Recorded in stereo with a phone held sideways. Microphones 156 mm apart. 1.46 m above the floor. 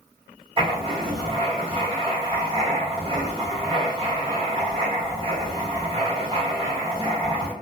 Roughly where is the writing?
Right.